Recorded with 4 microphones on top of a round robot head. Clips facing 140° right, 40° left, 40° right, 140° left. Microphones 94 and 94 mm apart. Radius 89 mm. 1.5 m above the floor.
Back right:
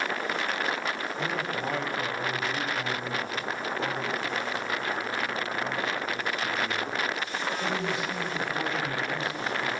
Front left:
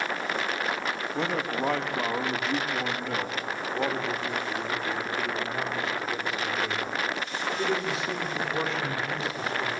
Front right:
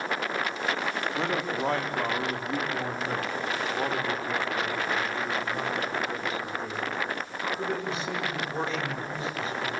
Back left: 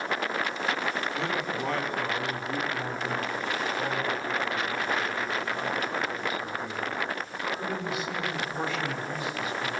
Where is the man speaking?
15° left, 4 m; by 9.7 s 20° left, 8 m.